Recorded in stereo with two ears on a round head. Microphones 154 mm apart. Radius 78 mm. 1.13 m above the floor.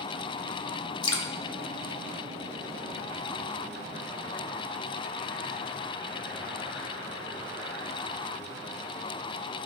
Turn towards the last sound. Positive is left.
turn(degrees=25)  # may be behind; listen again after turning